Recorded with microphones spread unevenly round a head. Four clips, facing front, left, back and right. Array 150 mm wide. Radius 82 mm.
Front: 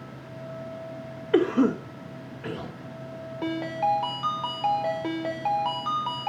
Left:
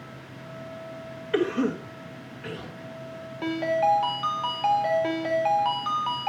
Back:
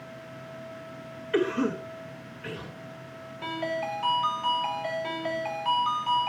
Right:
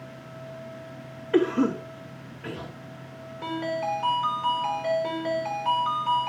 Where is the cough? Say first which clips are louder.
Right 3 dB, front 5 dB; 20° right, 1.3 m.